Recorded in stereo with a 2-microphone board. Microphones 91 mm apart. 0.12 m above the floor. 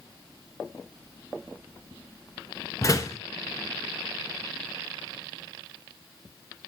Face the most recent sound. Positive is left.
turn(degrees=35)  # may be behind; listen again after turning